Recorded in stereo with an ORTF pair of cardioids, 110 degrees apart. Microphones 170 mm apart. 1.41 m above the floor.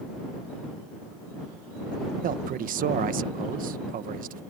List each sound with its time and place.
2.2 s a man speaking: 55° right